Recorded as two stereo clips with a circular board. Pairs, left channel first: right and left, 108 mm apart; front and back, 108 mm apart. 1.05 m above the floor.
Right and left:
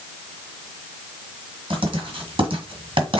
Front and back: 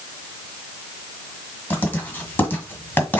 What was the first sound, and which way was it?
Writing, 70° left.